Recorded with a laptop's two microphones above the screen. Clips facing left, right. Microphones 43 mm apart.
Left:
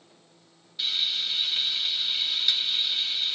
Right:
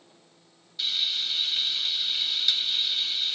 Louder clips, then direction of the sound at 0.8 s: Even; 15° left (ahead or behind).